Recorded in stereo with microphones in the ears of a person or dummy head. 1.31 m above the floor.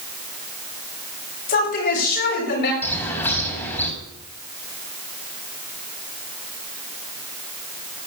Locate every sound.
1.5 s a woman speaking: 50° left (ahead or behind), 8 m; by 2.7 s 55° left (ahead or behind), 7.5 m
2.8 s a bird: 10° left (ahead or behind), 5 m